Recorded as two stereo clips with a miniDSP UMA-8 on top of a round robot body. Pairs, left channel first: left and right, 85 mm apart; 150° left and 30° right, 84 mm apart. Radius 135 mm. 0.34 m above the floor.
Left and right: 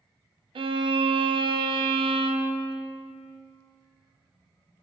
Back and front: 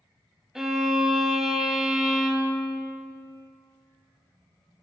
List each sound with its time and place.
0.6 s a violin: 115° right, 0.7 m